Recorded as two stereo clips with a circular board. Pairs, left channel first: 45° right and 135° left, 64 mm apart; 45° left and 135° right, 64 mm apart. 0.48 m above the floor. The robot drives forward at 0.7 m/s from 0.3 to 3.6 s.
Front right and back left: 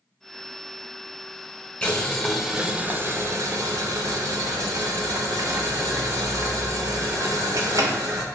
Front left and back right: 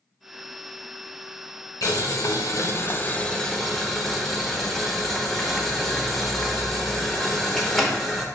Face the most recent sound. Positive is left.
turn(degrees=135)